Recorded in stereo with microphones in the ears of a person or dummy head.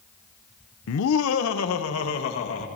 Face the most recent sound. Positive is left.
turn(degrees=80)